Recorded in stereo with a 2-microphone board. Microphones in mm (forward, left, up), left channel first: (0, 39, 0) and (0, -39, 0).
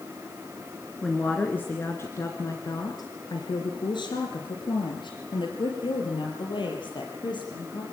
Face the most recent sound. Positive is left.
turn(degrees=65)  # may be behind; listen again after turning